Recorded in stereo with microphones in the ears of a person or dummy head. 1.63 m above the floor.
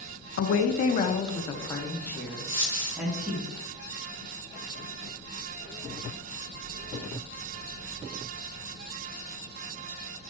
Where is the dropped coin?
20° right (ahead or behind), 1.8 m.